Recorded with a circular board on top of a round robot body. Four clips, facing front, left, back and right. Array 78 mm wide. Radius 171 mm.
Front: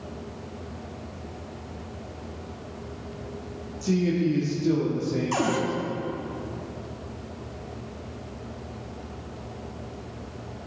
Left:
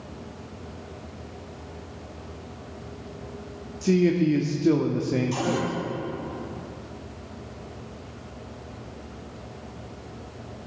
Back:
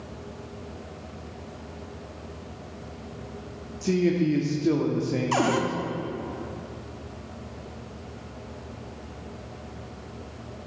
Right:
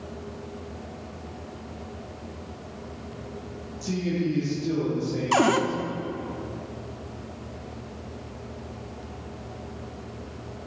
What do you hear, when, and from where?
3.8 s a man speaking: 115° left, 1.3 m
5.3 s a cupboard door: 105° right, 0.9 m